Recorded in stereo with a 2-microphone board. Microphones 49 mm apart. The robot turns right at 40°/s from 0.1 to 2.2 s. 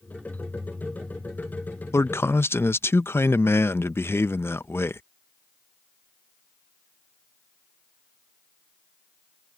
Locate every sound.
1.9 s a man speaking: 65° left (ahead or behind); by 5.0 s 55° left (ahead or behind)